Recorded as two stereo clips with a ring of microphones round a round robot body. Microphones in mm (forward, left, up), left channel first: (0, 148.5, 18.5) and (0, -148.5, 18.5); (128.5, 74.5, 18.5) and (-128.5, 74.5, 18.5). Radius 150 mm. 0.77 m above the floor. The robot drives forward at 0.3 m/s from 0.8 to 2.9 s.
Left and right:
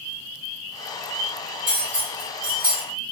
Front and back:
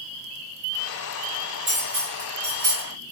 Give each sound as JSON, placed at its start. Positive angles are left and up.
{"t": 1.7, "sound": "cutlery clinking", "azimuth_deg": -130, "distance_m": 1.9}